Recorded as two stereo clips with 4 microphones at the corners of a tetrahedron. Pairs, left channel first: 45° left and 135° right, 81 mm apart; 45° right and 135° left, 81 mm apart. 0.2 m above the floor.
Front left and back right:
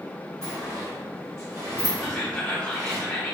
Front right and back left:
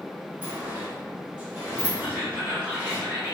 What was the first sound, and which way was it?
A sliding door, 165° right.